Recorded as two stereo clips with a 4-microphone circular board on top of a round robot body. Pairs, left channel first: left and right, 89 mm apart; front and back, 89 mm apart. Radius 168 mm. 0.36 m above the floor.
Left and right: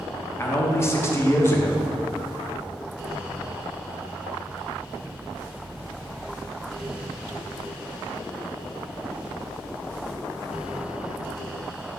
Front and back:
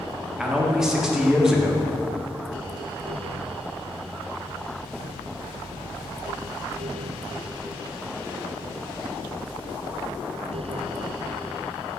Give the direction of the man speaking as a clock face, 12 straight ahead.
9 o'clock.